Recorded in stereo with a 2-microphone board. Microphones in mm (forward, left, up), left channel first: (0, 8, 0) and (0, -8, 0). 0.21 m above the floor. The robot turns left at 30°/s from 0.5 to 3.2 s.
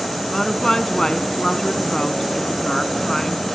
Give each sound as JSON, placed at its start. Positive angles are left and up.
{"t": 0.3, "sound": "a woman speaking", "azimuth_deg": 130, "distance_m": 1.5}